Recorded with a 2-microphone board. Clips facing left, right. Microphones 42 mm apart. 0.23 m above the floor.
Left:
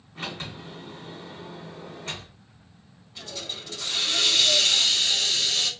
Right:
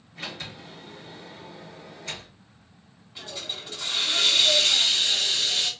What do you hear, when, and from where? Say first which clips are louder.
0.1 s a sliding door: left 2 dB; 40° left (ahead or behind), 2.0 m
3.1 s a hiss: even; 15° right (ahead or behind), 1.2 m